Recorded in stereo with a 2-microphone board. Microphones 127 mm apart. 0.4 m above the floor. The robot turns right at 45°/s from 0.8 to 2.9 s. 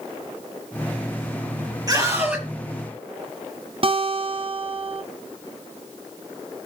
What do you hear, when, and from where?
1.9 s a scream: 30° right (ahead or behind), 7 m; by 2.5 s centre (ahead or behind), 7 m
3.8 s a guitar: 45° right (ahead or behind), 1.6 m